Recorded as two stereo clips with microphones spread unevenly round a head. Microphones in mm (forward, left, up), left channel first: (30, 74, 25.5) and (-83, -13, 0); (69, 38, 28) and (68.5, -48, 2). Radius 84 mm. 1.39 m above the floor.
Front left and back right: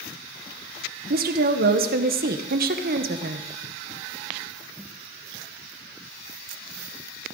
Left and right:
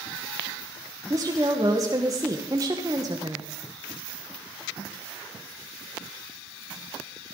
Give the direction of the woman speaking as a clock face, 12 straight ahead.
5 o'clock.